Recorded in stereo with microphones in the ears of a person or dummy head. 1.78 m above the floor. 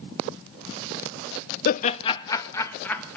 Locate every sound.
1.6 s laughter: 55° left (ahead or behind), 0.6 m; by 3.2 s 10° left (ahead or behind), 2 m